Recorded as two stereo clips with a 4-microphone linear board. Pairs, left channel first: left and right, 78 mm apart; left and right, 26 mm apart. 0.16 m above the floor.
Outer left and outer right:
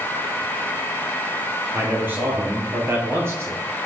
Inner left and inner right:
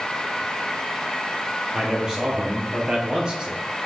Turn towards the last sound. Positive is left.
turn(degrees=-35)  # may be behind; listen again after turning